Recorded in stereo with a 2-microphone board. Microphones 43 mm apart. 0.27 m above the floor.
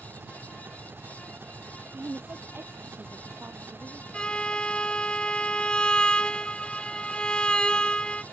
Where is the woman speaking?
55° right (ahead or behind).